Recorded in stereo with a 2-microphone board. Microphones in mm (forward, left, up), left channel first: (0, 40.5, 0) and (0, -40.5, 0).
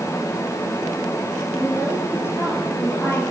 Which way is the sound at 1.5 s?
30° left (ahead or behind).